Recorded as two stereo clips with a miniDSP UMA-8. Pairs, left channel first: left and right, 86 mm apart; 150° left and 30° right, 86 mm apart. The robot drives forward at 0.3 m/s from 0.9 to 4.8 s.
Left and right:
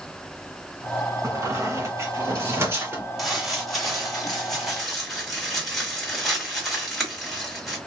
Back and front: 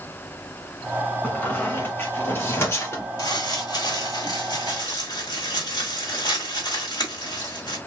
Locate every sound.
1.2 s a squeak: 140° right, 1.7 m; by 3.1 s 150° right, 2 m
3.2 s crumpling: straight behind, 2.5 m